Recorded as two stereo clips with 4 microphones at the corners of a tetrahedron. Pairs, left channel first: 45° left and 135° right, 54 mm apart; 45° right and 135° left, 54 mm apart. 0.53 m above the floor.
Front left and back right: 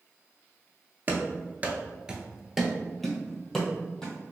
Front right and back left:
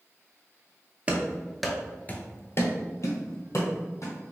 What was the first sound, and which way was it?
Running footsteps, 170° right.